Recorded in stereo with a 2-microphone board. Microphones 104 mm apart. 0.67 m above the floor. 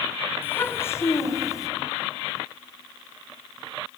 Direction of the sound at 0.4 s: 20° left (ahead or behind).